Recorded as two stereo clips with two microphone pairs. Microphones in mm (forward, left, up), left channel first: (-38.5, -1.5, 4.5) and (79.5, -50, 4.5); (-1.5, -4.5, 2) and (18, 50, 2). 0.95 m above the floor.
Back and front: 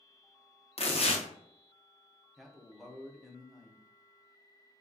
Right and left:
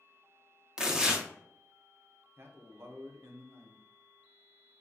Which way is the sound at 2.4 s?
65° left.